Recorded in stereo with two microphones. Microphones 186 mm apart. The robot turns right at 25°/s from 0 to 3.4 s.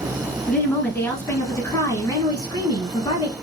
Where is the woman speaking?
5° left (ahead or behind), 1.4 m; by 3.3 s 25° left (ahead or behind), 1.4 m.